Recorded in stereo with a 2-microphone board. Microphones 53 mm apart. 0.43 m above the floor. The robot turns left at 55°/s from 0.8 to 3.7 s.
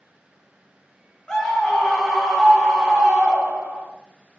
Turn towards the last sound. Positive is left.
turn(degrees=-20)  # may be behind; listen again after turning